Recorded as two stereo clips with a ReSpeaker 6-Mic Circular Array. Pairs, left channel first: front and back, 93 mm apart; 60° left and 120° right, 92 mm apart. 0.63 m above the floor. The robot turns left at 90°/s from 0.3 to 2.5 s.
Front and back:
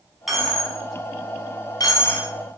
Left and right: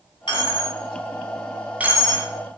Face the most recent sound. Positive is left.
turn(degrees=-105)